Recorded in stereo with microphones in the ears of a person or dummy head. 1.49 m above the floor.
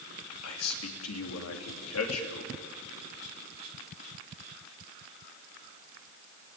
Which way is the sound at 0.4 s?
75° left (ahead or behind).